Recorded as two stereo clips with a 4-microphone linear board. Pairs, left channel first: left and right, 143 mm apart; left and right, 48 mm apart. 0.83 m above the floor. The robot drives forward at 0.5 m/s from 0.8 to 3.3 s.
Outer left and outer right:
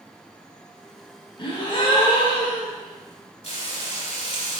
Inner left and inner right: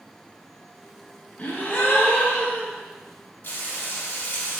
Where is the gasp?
35° left (ahead or behind), 0.8 m; by 2.7 s 30° left (ahead or behind), 0.9 m.